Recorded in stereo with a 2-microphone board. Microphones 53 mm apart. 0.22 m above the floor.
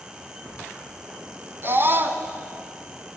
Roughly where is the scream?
Right.